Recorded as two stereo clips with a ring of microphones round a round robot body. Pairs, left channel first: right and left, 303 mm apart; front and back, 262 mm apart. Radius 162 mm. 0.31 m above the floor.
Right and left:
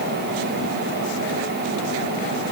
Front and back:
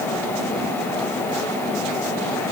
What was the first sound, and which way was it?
Only background noise.